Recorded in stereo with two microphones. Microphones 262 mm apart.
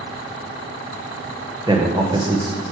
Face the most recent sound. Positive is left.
turn(degrees=-20)  # may be behind; listen again after turning